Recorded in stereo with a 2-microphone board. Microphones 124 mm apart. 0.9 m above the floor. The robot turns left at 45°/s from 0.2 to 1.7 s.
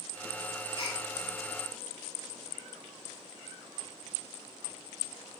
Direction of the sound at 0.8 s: 40° left (ahead or behind).